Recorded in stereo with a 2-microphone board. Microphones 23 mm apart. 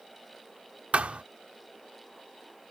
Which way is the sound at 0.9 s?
65° right (ahead or behind).